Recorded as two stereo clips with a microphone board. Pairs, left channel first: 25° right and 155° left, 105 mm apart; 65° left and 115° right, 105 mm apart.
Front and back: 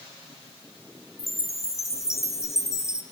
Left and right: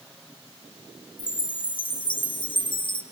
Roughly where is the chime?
Ahead left.